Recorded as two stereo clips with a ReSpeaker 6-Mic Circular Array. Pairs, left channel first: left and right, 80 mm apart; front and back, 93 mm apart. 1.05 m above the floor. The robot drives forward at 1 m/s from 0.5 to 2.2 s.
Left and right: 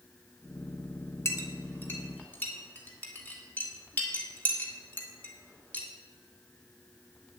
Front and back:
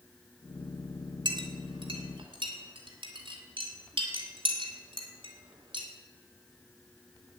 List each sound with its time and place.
1.2 s a clink: 145° left, 1.5 m; by 5.9 s 160° left, 2.5 m